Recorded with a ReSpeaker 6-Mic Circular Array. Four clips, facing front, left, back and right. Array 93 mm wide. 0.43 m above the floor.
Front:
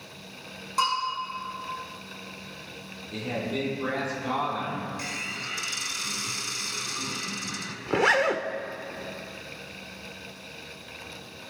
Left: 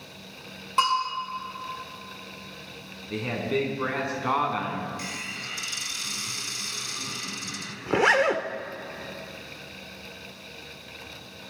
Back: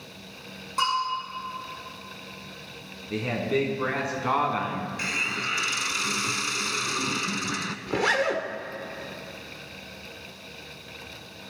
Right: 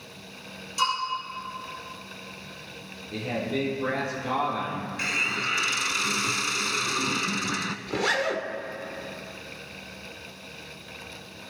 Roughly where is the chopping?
No chopping in this recording.